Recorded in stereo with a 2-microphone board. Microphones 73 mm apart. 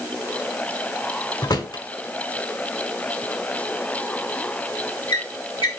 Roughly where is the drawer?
Left.